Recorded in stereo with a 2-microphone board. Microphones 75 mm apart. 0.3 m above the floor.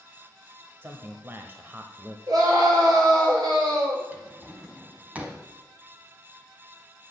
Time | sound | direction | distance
0.8 | a man speaking | 30° right (ahead or behind) | 1.0 m
2.3 | a scream | 60° right (ahead or behind) | 5 m
4.1 | a drawer | 20° right (ahead or behind) | 1.5 m